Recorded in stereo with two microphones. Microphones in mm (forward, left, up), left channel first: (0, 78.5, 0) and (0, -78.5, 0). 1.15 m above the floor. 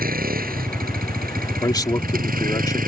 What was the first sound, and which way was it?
A vehicle, 85° right.